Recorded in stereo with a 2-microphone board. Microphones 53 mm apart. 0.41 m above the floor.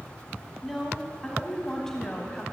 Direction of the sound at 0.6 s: Centre (ahead or behind).